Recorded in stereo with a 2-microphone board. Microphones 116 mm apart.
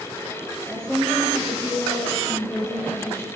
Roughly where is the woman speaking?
Centre.